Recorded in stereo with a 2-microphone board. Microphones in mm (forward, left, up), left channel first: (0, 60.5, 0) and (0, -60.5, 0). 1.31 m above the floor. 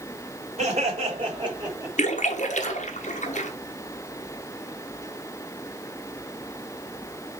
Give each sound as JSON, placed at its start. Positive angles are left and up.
{"t": 0.6, "sound": "laughter", "side_deg": -55, "distance_m": 3.5}
{"t": 2.0, "sound": "a splash", "side_deg": 70, "distance_m": 1.2}